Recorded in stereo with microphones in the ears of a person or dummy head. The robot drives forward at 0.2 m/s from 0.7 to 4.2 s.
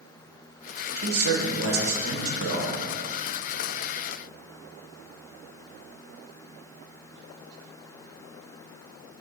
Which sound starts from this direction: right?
A man speaking, at 1.0 s.